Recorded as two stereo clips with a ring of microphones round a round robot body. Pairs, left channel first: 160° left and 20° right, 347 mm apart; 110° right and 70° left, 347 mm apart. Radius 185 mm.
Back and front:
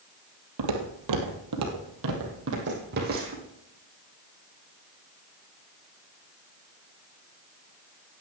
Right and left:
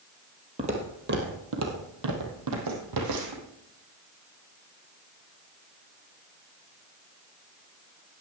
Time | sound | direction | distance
0.6 | footsteps | 5° right | 1.7 m